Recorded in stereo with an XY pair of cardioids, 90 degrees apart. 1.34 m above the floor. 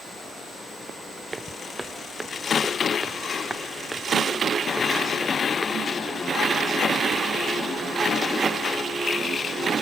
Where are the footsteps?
25° right; by 9.6 s 15° left.